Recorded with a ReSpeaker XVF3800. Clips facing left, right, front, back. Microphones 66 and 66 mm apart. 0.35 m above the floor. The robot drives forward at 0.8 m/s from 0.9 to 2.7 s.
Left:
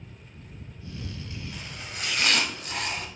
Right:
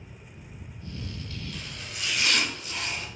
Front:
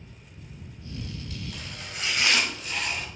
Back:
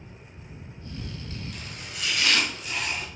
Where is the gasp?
No gasp in this recording.